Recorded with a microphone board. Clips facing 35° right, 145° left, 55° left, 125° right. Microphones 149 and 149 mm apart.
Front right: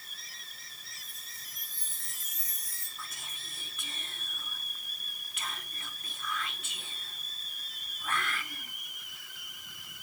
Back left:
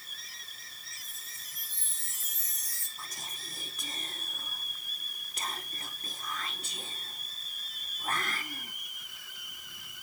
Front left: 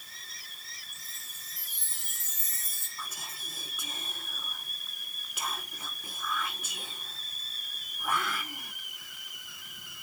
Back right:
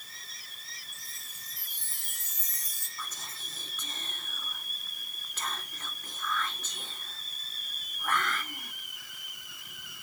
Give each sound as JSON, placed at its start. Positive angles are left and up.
{"t": 0.9, "sound": "a chime", "azimuth_deg": 160, "distance_m": 2.5}
{"t": 3.0, "sound": "whispering", "azimuth_deg": 130, "distance_m": 1.1}